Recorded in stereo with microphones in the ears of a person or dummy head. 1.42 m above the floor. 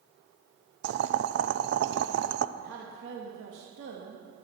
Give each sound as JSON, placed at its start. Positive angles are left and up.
{"t": 0.8, "sound": "boiling", "side_deg": -65, "distance_m": 0.7}
{"t": 2.6, "sound": "a woman speaking", "side_deg": -80, "distance_m": 2.0}